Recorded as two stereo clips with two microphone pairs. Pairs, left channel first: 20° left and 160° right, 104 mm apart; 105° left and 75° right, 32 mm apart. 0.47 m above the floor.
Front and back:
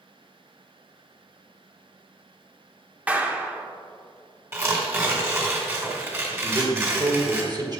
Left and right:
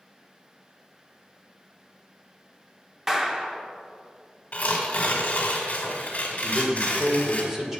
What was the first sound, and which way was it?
A clap, 110° right.